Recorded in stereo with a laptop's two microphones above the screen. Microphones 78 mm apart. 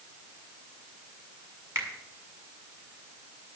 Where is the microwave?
I don't hear a microwave.